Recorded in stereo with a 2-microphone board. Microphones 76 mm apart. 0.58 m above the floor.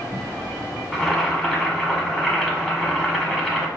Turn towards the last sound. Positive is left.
turn(degrees=0)  # may be behind; listen again after turning